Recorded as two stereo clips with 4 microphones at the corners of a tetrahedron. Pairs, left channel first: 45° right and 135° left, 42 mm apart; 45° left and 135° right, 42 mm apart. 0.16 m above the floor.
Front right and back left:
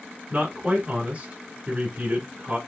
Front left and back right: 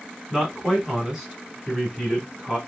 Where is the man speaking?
150° left, 1.7 m.